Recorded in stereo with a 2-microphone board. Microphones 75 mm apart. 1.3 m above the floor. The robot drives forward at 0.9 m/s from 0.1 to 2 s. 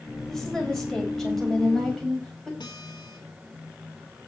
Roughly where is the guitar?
Left.